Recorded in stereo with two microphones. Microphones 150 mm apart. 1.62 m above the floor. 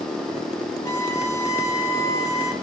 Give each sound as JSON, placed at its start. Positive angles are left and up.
{"t": 0.8, "sound": "a violin", "side_deg": 25, "distance_m": 1.3}